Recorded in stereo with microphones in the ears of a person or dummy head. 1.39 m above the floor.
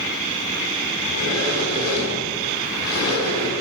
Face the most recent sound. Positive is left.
turn(degrees=60)  # may be behind; listen again after turning